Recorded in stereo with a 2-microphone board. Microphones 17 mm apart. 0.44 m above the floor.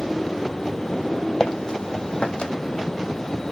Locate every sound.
1.4 s footsteps: 50° left (ahead or behind), 1.2 m; by 2.5 s 70° left (ahead or behind), 1.3 m